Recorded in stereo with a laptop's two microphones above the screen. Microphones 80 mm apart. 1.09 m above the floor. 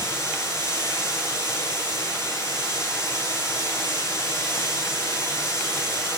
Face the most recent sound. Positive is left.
turn(degrees=35)  # may be behind; listen again after turning